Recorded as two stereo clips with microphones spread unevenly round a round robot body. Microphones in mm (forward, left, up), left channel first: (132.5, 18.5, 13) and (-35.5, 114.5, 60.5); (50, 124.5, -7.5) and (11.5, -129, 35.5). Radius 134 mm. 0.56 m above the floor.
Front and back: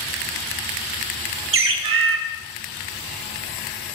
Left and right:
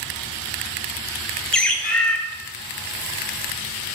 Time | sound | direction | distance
1.5 | a bird | 165° left | 1.6 m